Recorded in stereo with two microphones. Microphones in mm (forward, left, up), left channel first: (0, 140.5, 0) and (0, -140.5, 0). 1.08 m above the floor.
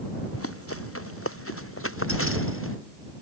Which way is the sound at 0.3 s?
50° left (ahead or behind).